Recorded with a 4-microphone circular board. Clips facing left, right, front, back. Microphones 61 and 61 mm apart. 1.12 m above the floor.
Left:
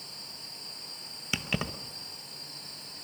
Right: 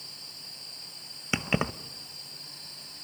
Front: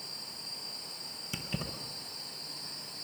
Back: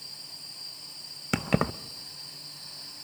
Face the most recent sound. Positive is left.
turn(degrees=-155)